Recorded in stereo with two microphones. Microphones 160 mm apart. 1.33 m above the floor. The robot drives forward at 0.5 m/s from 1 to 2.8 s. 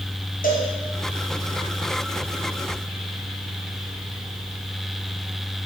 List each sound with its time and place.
0.4 s a cowbell: 65° left (ahead or behind), 2 m